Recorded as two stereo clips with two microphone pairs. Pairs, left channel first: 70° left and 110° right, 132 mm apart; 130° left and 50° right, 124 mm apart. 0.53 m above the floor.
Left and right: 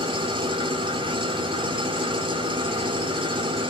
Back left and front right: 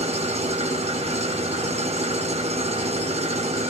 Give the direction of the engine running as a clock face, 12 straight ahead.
2 o'clock.